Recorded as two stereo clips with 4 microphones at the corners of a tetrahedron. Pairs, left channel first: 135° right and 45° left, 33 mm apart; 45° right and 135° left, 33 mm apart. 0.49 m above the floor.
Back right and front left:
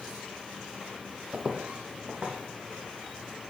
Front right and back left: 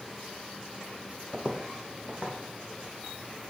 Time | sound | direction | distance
1.3 | footsteps | 75° left | 0.7 m